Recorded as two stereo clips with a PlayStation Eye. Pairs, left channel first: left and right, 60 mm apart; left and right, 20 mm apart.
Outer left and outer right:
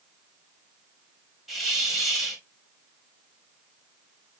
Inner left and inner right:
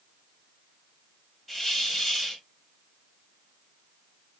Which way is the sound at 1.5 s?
Centre (ahead or behind).